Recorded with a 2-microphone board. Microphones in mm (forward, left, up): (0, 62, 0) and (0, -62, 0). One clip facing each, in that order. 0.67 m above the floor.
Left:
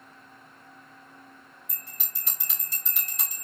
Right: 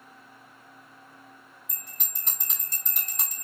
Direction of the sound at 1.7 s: 50° right (ahead or behind).